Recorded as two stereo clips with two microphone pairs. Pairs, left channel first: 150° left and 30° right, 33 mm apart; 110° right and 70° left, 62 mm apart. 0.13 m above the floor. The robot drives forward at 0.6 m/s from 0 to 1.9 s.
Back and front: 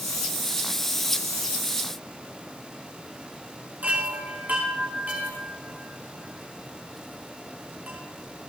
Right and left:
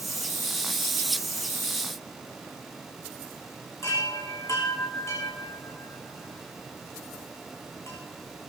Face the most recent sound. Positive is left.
turn(degrees=-70)